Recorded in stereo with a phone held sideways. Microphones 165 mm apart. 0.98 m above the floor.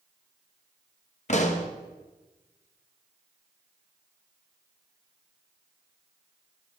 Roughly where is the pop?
Left.